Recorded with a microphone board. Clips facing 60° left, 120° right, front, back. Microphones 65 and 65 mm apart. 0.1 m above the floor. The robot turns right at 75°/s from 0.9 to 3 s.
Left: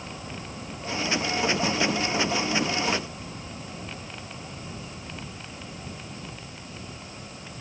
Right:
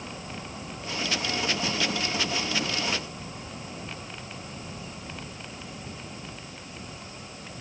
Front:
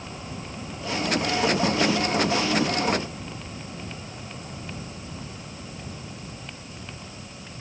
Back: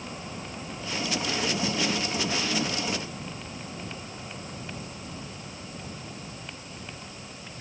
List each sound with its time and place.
Only background noise.